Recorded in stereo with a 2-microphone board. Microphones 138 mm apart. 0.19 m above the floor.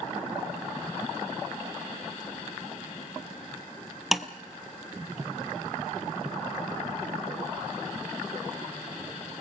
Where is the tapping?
Centre (ahead or behind), 0.9 m.